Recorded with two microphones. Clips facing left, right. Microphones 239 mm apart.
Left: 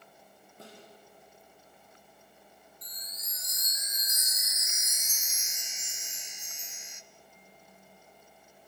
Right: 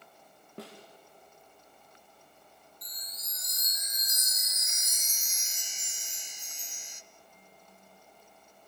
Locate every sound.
0.6 s a snare drum: 80° right, 4.5 m
2.8 s a chime: 35° right (ahead or behind), 0.7 m